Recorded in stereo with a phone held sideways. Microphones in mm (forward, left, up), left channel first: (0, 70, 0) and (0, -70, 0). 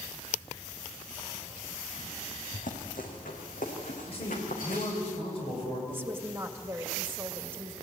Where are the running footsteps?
75° left (ahead or behind), 4 m; by 5.1 s 80° left, 6 m.